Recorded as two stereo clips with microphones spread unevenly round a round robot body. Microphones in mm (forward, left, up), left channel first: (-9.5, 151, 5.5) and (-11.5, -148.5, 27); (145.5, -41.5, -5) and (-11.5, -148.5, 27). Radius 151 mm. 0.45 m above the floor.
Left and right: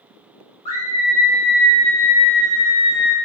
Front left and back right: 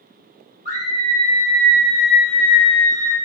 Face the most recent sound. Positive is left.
turn(degrees=-135)